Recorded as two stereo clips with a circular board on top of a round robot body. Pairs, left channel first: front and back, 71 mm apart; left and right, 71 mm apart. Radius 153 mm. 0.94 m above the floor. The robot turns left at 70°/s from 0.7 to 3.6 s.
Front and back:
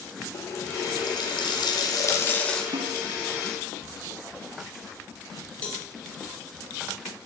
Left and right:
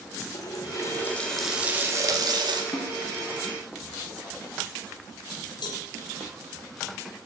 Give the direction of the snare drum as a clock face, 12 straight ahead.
7 o'clock.